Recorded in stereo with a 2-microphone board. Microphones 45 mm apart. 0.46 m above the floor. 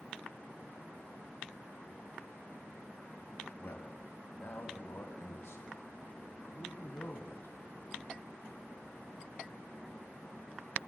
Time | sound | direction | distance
3.6 | a man speaking | 65° left (ahead or behind) | 2.5 m